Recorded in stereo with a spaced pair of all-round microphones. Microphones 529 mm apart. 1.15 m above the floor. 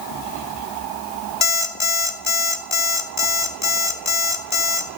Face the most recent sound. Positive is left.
turn(degrees=55)  # may be behind; listen again after turning